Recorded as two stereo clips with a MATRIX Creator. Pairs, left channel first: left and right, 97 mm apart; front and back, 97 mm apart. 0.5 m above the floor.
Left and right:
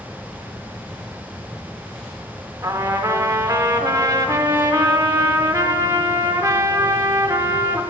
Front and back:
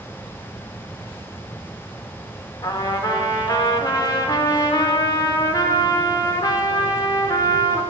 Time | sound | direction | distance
2.6 | a trumpet | 40° right | 0.6 m